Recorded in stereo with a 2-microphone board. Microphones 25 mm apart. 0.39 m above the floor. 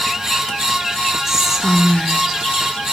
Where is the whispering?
20° right (ahead or behind), 0.8 m.